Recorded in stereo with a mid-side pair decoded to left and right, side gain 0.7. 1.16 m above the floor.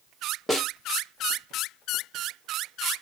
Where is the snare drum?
Straight ahead, 2 m.